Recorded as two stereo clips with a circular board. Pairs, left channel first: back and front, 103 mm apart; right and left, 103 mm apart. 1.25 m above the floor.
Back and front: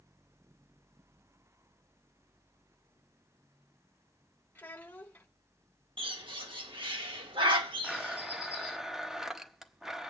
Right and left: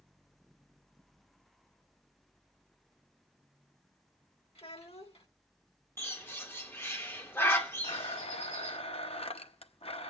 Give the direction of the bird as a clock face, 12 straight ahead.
1 o'clock.